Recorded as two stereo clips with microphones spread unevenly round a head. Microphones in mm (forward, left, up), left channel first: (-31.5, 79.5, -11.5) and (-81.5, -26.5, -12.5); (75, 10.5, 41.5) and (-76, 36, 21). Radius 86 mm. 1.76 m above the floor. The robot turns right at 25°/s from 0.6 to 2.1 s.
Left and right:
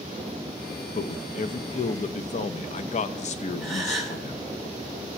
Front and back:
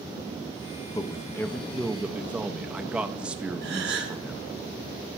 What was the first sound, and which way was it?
A man speaking, 55° left.